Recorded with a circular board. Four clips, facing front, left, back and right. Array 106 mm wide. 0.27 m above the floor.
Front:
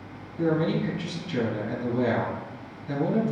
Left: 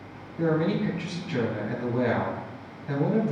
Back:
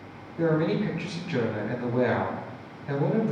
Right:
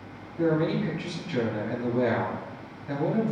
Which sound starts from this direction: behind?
A man speaking, at 0.4 s.